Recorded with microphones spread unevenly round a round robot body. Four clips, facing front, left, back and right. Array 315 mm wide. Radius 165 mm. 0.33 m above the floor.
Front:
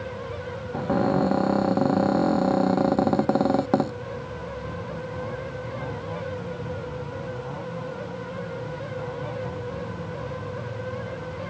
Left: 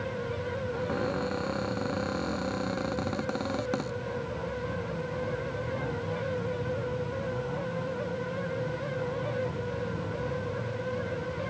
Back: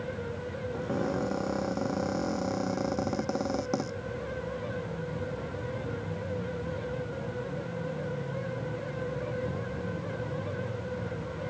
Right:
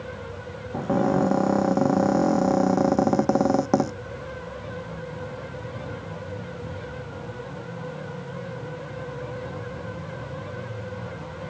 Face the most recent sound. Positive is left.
turn(degrees=-50)